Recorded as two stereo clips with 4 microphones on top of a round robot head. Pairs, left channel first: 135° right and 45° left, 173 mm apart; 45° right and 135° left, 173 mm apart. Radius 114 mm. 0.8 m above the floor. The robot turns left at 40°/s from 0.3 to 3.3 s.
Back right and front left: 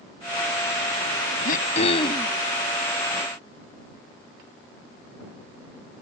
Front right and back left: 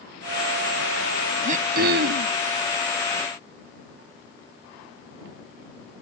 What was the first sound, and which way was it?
Throat clearing, 175° right.